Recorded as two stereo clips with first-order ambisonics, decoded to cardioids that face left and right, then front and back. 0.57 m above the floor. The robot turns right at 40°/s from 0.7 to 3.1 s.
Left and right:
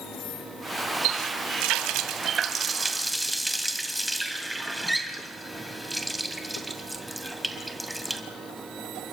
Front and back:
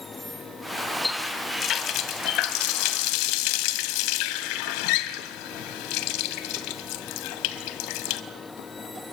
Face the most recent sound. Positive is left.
turn(degrees=-5)